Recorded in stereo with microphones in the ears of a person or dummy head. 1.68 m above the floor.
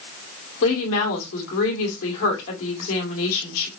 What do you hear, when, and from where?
0.6 s a woman speaking: 70° left (ahead or behind), 1.9 m